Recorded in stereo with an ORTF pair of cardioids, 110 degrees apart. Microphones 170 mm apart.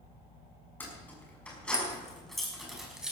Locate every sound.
0.8 s keys jangling: 10° left, 6 m; by 3.1 s 5° right, 5.5 m